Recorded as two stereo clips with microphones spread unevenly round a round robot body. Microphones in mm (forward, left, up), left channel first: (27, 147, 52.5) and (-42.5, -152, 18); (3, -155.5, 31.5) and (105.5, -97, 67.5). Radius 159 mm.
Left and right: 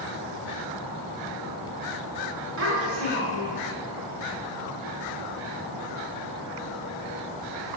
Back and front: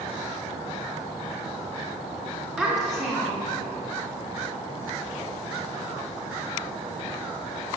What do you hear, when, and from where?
2.6 s a child speaking: 55° right, 2.5 m; by 3.6 s 70° right, 2.5 m